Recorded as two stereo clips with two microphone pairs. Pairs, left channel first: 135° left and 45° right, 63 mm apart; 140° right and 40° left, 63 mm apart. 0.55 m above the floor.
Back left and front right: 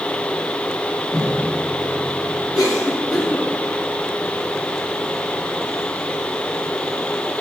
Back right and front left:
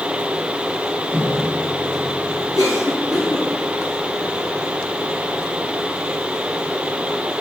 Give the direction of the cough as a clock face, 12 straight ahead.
4 o'clock.